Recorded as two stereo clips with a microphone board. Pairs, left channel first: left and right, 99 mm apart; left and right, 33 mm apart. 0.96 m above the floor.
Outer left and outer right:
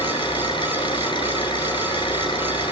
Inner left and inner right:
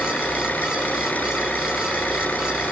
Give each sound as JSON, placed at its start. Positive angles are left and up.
{"t": 0.0, "sound": "an engine running", "side_deg": 55, "distance_m": 9.0}